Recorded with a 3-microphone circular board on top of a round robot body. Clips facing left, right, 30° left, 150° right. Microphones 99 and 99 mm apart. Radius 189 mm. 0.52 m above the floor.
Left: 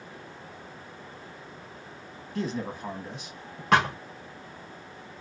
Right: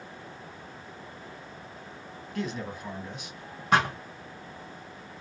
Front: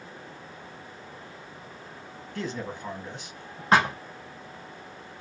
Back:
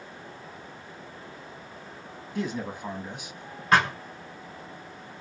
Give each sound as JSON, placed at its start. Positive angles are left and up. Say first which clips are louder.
{"t": 2.4, "sound": "a man speaking", "louder": "left 2 dB, back 2 dB", "azimuth_deg": 145, "distance_m": 1.1}
{"t": 3.7, "sound": "a thud", "louder": "left 2 dB, front 1 dB", "azimuth_deg": 95, "distance_m": 0.5}